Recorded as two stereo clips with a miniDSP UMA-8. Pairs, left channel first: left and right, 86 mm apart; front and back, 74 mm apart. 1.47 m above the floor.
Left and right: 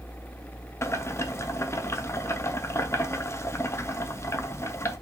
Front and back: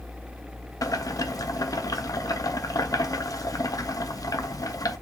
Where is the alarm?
I don't hear an alarm.